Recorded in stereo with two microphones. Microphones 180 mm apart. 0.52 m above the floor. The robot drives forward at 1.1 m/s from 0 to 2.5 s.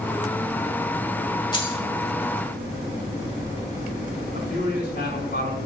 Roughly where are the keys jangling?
Left.